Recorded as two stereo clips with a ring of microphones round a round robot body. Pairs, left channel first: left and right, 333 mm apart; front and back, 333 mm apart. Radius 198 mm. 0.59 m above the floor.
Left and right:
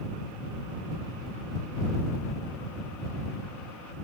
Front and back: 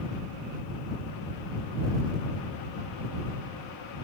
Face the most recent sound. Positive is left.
No sound to turn to.